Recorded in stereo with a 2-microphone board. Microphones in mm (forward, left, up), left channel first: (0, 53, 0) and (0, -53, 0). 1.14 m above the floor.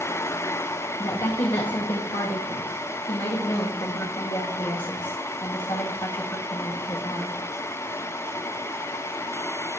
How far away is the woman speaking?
About 1.8 m.